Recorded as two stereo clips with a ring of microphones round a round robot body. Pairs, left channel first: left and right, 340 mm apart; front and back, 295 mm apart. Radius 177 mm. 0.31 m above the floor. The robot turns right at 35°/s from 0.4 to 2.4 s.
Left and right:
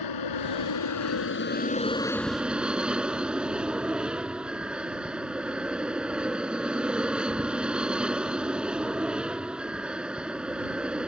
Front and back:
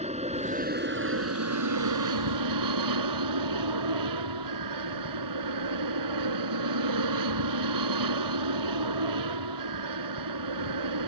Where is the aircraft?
115° left; by 11.1 s 175° right.